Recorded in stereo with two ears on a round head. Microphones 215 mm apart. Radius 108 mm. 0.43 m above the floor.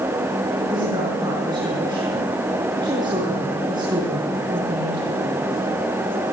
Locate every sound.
0.7 s a woman speaking: 20° right (ahead or behind), 5.5 m